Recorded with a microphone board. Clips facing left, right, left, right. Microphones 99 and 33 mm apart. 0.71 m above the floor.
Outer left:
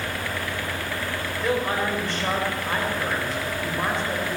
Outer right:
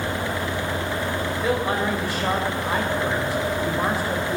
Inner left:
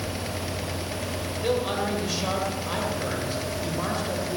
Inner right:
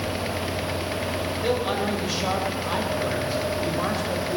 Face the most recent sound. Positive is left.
turn(degrees=-5)  # may be behind; listen again after turning